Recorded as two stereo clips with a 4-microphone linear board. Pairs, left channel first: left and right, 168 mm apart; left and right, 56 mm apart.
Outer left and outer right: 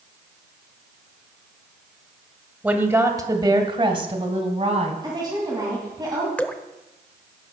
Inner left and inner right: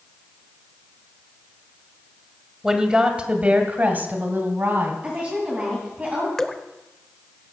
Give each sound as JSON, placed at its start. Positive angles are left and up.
{"t": 2.6, "sound": "a woman speaking", "side_deg": -10, "distance_m": 1.5}
{"t": 5.0, "sound": "a woman speaking", "side_deg": -25, "distance_m": 2.5}
{"t": 6.4, "sound": "dripping", "side_deg": 10, "distance_m": 0.6}